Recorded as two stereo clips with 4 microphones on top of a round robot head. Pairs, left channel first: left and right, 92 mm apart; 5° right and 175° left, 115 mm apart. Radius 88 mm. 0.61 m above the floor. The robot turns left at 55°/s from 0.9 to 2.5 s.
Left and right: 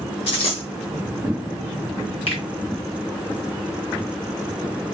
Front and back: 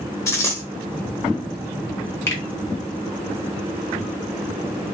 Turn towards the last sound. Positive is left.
turn(degrees=50)